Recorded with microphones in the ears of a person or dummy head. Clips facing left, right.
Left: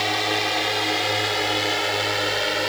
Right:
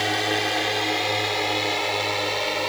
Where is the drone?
5° right (ahead or behind); by 2.7 s 10° left (ahead or behind).